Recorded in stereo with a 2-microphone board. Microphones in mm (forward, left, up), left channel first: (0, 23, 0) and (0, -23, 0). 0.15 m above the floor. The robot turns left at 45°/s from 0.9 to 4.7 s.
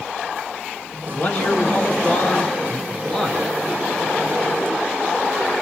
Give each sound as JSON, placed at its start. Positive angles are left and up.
{"t": 1.1, "sound": "a man speaking", "azimuth_deg": 110, "distance_m": 1.4}